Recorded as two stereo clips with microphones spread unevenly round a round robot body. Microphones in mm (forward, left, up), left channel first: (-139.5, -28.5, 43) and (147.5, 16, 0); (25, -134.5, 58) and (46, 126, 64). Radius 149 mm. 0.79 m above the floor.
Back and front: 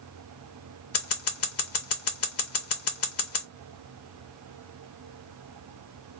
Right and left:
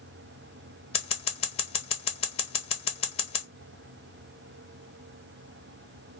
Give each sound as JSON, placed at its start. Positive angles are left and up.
{"t": 0.9, "sound": "scissors", "azimuth_deg": -150, "distance_m": 0.6}